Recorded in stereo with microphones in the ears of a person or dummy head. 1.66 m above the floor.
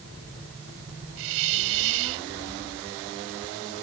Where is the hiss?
70° right (ahead or behind).